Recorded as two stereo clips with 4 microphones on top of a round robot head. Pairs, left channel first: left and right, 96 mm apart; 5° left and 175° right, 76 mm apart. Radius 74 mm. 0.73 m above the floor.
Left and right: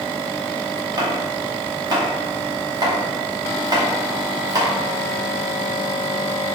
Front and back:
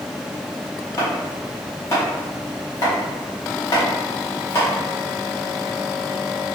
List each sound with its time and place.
1.0 s chopping: 45° right, 1.2 m